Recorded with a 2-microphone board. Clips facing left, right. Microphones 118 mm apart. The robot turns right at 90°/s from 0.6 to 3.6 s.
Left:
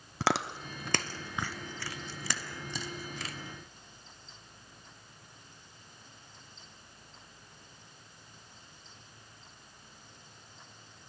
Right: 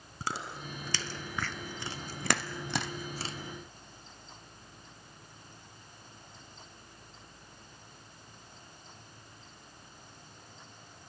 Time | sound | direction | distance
0.2 | chewing | 80° left | 1.1 m